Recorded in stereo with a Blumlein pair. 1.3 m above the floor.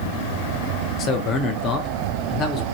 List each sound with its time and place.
1.0 s a man speaking: 30° left, 0.6 m